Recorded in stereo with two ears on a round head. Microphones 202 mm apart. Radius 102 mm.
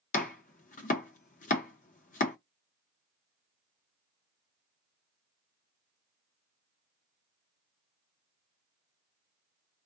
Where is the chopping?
35° left (ahead or behind), 0.6 m.